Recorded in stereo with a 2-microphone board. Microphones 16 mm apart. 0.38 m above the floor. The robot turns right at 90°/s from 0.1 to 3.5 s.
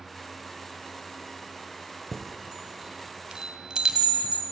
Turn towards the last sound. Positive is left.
turn(degrees=-65)  # may be behind; listen again after turning